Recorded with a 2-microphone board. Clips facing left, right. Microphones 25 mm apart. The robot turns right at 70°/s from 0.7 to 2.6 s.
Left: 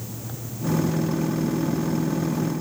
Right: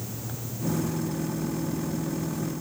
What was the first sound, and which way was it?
Only background noise.